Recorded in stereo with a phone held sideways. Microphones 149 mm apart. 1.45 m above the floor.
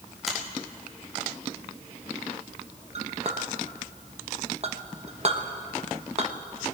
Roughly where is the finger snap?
Centre.